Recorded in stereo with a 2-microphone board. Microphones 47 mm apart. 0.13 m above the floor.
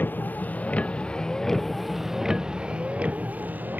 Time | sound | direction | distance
0.0 | a vehicle | 45° left (ahead or behind) | ?